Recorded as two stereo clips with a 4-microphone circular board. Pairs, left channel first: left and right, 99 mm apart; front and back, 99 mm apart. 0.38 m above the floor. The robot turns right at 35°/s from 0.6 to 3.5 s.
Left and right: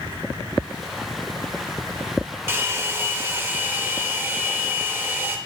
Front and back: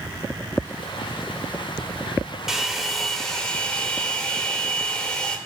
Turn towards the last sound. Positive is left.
turn(degrees=-65)